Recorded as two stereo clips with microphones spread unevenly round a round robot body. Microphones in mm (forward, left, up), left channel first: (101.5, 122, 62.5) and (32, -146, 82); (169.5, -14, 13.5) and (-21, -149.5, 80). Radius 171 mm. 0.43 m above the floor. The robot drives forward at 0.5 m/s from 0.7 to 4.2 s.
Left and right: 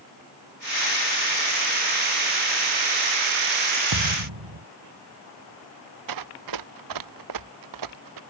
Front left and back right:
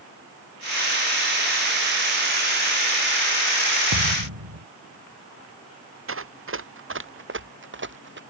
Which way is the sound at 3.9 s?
130° right.